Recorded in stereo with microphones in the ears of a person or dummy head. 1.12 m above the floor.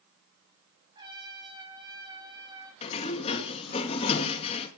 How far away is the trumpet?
About 6.5 m.